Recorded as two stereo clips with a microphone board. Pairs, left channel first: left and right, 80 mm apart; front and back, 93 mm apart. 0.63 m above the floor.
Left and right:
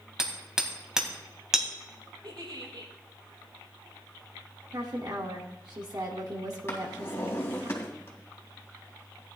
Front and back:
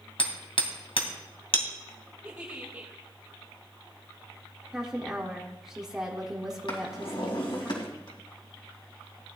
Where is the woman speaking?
95° right, 1.5 m.